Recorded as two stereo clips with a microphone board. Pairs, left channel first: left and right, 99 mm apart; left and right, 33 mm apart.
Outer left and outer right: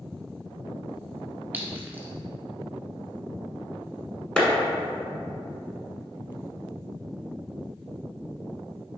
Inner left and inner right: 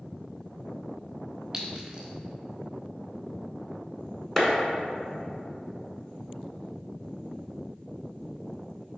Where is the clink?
20° right (ahead or behind), 1.1 m.